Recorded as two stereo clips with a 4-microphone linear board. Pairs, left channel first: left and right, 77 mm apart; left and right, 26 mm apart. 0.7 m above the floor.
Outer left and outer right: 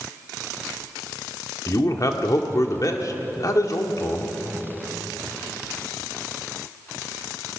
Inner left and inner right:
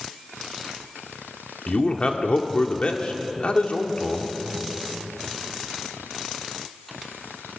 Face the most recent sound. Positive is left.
turn(degrees=50)  # may be behind; listen again after turning